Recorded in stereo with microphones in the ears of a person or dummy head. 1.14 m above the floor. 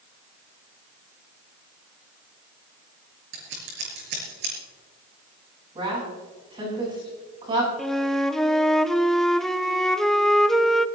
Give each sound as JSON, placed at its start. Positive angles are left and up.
{"t": 3.3, "sound": "scissors", "side_deg": -55, "distance_m": 5.0}
{"t": 5.8, "sound": "a woman speaking", "side_deg": -25, "distance_m": 8.0}
{"t": 7.8, "sound": "a flute", "side_deg": 0, "distance_m": 0.6}